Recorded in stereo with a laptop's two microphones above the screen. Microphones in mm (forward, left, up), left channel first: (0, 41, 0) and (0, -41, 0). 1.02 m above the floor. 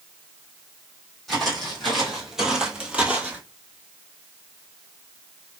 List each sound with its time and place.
1.3 s footsteps: 5° left (ahead or behind), 1.8 m; by 3.4 s 15° right (ahead or behind), 1.2 m